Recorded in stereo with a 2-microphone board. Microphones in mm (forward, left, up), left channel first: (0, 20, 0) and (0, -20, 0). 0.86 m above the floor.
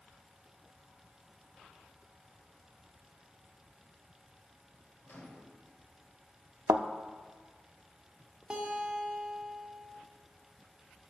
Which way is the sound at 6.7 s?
60° right (ahead or behind).